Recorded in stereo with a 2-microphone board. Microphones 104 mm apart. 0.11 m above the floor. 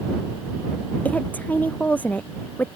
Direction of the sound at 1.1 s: 15° left (ahead or behind).